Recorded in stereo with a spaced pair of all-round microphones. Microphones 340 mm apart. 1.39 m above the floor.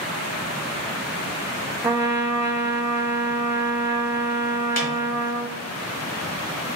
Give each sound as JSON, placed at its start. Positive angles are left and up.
{"t": 1.8, "sound": "a trumpet", "side_deg": -5, "distance_m": 0.8}
{"t": 4.8, "sound": "a snare drum", "side_deg": 50, "distance_m": 1.6}